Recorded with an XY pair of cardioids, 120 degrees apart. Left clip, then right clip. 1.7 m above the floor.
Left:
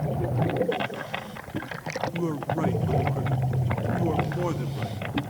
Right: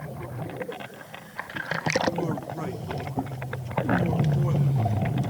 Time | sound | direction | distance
2.1 | a man speaking | 15° left | 1.7 m